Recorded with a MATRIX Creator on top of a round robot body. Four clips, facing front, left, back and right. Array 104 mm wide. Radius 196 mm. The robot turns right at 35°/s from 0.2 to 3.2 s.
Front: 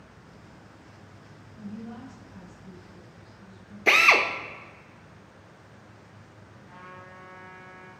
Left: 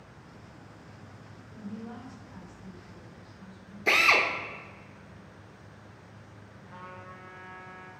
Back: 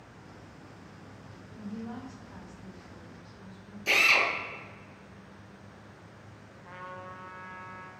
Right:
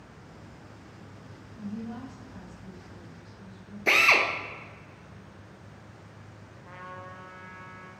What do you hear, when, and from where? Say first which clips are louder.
1.5 s a woman speaking: right 4 dB, even; 130° left, 1.8 m; by 3.8 s 170° right, 1.8 m
3.9 s a drill: right 1 dB, front 6 dB; 5° right, 1.0 m
6.7 s a trumpet: right 3 dB, back 4 dB; 150° right, 1.2 m